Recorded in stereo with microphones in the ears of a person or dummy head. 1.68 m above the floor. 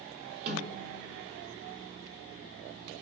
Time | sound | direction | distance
0.5 | a snare drum | 40° right (ahead or behind) | 0.5 m